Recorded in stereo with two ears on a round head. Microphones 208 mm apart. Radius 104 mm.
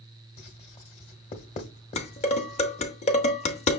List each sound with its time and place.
0.4 s writing: 30° left (ahead or behind), 1.1 m
2.0 s dishes clattering: 30° left (ahead or behind), 0.8 m